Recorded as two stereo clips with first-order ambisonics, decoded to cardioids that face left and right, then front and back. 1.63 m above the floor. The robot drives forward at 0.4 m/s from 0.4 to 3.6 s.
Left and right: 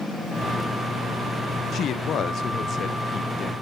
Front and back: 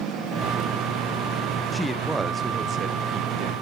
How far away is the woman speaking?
About 0.6 m.